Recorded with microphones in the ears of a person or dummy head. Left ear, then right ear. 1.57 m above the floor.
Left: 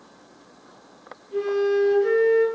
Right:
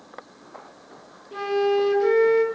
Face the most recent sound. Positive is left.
turn(degrees=-40)  # may be behind; listen again after turning